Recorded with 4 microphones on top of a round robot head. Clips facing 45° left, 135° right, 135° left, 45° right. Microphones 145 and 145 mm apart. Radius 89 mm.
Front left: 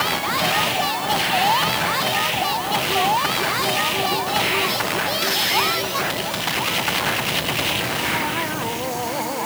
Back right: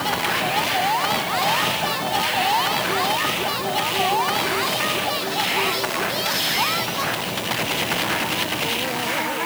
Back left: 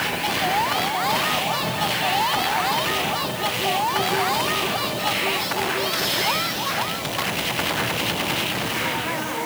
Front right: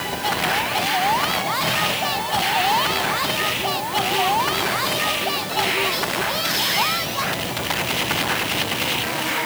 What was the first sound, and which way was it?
Only background noise.